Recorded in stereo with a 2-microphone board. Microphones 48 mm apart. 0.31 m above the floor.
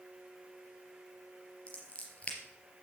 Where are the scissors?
25° left (ahead or behind), 3.5 m.